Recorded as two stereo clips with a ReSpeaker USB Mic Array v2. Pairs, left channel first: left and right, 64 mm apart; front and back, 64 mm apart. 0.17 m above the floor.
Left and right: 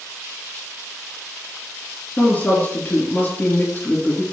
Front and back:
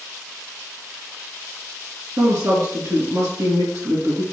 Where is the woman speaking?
155° left, 4 m.